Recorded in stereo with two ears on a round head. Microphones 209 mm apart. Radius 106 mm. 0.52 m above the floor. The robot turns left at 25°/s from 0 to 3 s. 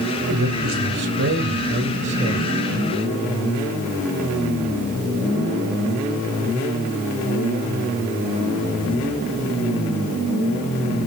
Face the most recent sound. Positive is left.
turn(degrees=-165)